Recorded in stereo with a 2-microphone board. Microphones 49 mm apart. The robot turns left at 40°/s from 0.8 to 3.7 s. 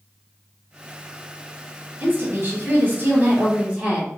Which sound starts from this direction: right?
A woman speaking, at 2.0 s.